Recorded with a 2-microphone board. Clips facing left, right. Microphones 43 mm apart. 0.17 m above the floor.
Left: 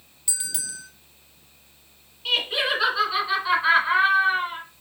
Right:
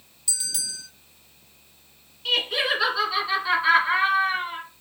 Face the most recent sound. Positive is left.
turn(degrees=10)  # may be behind; listen again after turning